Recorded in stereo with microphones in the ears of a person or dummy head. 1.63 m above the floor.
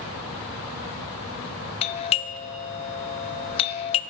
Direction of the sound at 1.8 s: 35° left (ahead or behind).